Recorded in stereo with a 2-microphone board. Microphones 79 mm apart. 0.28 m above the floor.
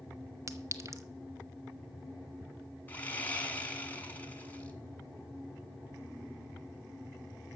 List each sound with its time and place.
0.5 s a clink: 40° right (ahead or behind), 0.9 m
2.9 s sawing: 25° left (ahead or behind), 1.7 m